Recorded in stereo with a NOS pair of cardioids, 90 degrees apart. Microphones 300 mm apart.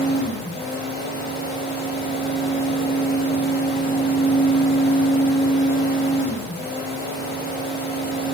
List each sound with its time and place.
0.0 s a fan: 30° left, 0.7 m